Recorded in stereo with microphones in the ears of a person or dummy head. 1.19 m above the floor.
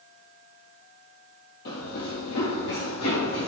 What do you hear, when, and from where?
1.6 s running footsteps: 50° left (ahead or behind), 1.8 m; by 3.5 s 55° left (ahead or behind), 3.5 m